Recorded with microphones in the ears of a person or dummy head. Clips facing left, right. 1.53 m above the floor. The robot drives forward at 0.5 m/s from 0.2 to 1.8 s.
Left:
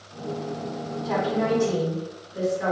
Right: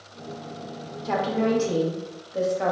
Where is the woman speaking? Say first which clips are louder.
Right 1 dB; 65° right (ahead or behind), 0.8 m; by 2.7 s 75° right (ahead or behind), 0.7 m.